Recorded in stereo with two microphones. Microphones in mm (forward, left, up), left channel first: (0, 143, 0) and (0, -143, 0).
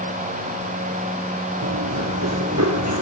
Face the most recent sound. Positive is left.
turn(degrees=-65)  # may be behind; listen again after turning